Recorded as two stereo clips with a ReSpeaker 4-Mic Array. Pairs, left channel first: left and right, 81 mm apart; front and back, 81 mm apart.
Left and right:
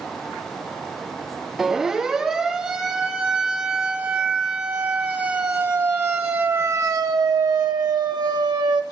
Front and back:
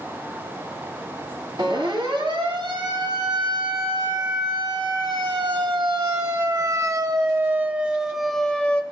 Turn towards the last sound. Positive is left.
turn(degrees=-70)